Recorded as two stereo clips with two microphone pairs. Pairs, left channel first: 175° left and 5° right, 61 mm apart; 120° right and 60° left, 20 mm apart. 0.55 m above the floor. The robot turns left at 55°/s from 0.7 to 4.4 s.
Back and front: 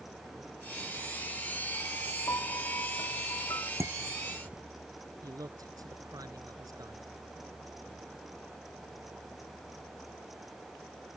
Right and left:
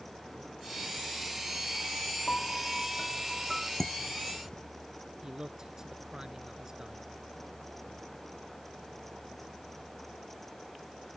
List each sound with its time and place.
2.3 s a piano: 145° right; by 3.7 s 135° left
3.8 s dishes clattering: 40° right; by 4.6 s 75° right
5.2 s a man speaking: straight ahead